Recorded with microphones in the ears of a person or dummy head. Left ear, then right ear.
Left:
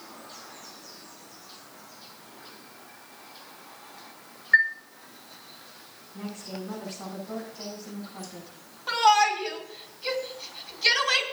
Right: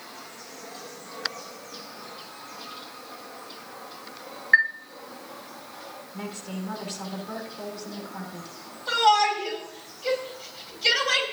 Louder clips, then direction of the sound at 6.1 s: Even; 75° right (ahead or behind).